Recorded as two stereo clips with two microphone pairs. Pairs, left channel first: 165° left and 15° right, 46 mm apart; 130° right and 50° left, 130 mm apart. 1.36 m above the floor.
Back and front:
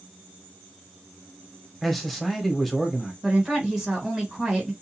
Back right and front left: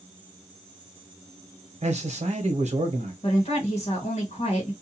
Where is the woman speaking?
95° right, 1.5 m.